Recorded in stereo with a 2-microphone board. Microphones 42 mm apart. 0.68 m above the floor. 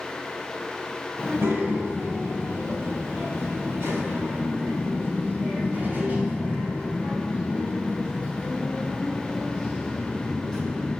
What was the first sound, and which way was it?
A child speaking, 80° right.